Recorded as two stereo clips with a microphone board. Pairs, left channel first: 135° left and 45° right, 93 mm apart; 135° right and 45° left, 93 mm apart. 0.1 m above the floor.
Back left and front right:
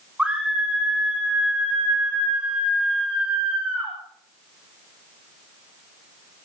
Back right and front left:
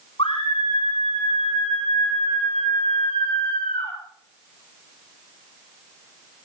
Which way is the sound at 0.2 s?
125° right.